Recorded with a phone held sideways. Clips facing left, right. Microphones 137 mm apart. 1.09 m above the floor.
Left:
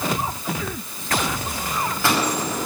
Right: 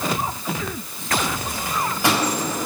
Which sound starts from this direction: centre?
A microwave, at 1.6 s.